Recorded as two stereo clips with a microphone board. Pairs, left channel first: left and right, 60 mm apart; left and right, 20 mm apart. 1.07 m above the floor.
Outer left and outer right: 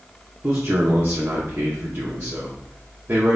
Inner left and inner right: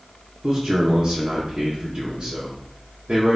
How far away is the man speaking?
About 0.7 m.